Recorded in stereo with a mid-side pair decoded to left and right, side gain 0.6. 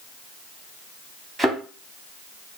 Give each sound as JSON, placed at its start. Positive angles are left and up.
{"t": 1.4, "sound": "a thud", "azimuth_deg": -15, "distance_m": 2.5}